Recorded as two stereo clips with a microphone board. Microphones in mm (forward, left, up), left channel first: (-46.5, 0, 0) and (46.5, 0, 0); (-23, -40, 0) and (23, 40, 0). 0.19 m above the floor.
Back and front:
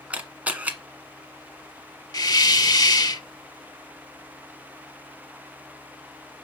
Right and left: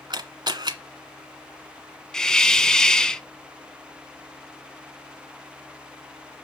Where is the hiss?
160° left, 0.7 m.